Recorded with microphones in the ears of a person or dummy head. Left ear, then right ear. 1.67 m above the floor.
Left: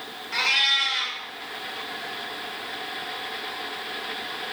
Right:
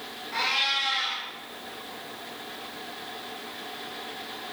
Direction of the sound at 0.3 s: 50° left (ahead or behind).